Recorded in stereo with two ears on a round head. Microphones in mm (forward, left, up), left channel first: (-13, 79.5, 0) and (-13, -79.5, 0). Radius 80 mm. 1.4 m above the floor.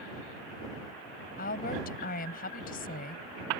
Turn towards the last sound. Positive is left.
turn(degrees=55)  # may be behind; listen again after turning